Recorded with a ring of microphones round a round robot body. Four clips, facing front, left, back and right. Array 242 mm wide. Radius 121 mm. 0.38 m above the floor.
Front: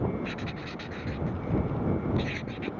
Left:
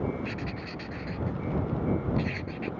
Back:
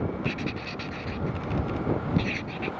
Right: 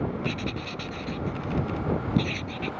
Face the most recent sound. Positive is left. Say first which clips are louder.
# right 4 dB, back 4 dB
turn(degrees=-130)